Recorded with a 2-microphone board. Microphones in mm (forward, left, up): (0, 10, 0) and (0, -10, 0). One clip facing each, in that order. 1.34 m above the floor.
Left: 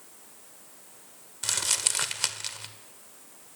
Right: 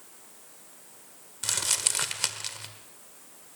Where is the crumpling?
5° left (ahead or behind), 1.6 m.